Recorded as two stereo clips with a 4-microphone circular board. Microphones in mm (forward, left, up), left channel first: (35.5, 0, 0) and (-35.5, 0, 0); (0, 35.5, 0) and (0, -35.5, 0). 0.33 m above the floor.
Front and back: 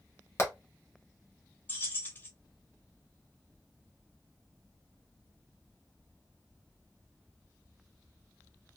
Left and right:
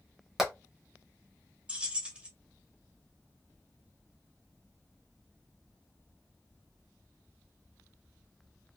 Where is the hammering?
10° right, 1.0 m.